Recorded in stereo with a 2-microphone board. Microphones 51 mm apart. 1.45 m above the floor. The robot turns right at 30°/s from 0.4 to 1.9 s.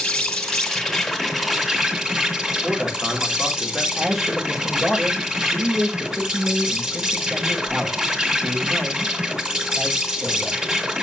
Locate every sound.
0.0 s an insect: 155° left, 1.5 m; by 11.0 s 160° right, 1.5 m
2.6 s a man speaking: 5° right (ahead or behind), 2.5 m
4.0 s a man speaking: centre (ahead or behind), 5.5 m